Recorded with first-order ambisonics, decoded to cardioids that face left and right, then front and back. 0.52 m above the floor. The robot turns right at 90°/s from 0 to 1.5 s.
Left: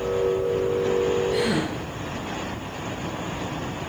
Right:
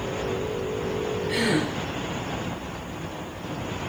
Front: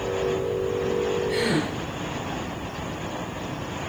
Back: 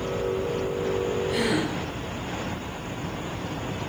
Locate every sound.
1.3 s a gasp: 70° right, 7 m; by 1.7 s 50° right, 7 m